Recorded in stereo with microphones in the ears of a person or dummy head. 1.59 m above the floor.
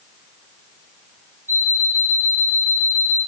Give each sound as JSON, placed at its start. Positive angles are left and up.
{"t": 1.5, "sound": "an alarm clock", "side_deg": -10, "distance_m": 3.0}